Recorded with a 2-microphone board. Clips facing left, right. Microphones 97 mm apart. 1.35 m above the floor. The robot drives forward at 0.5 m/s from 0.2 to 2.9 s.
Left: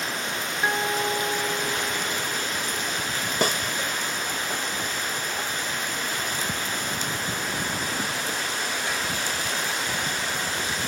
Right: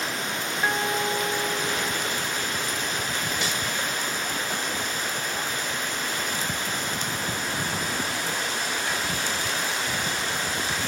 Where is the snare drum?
50° left (ahead or behind).